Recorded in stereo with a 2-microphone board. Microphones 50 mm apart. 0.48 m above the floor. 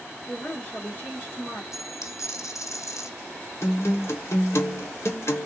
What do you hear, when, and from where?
0.3 s a woman speaking: 30° left (ahead or behind), 0.9 m
1.7 s a dropped coin: 75° left (ahead or behind), 1.5 m
3.6 s a guitar: 60° left (ahead or behind), 1.0 m